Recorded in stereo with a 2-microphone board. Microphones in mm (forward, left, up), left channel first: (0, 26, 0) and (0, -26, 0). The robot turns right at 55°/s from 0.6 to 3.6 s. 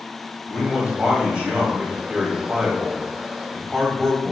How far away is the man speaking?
About 1.3 m.